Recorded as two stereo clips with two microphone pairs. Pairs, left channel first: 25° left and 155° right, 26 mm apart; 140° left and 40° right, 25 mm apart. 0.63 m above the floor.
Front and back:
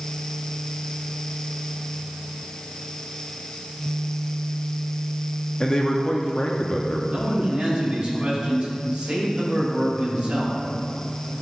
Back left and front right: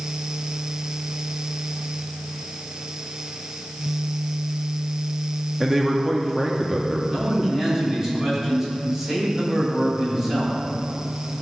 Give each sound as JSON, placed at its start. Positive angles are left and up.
{"t": 5.6, "sound": "a man speaking", "azimuth_deg": 10, "distance_m": 0.7}
{"t": 7.1, "sound": "a man speaking", "azimuth_deg": -115, "distance_m": 3.0}